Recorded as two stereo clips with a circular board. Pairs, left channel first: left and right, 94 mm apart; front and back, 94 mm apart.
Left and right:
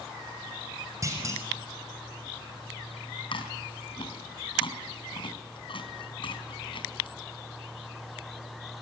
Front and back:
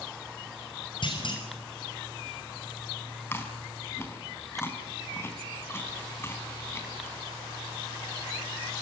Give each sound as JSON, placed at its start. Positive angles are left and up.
{"t": 1.0, "sound": "a clunk", "azimuth_deg": -35, "distance_m": 6.0}
{"t": 3.3, "sound": "chewing", "azimuth_deg": 65, "distance_m": 4.5}